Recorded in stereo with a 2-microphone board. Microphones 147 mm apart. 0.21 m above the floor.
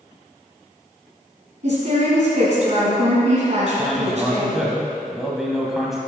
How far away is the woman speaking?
About 2 m.